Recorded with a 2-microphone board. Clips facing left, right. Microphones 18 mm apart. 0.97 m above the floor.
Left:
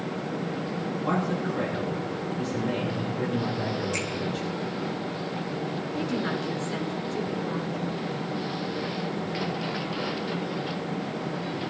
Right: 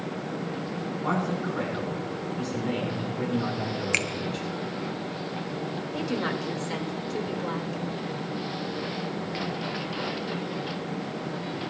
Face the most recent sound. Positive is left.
turn(degrees=-80)